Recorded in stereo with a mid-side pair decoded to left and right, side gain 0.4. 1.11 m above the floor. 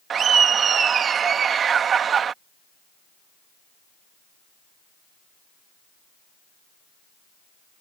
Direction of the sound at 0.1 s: 60° right.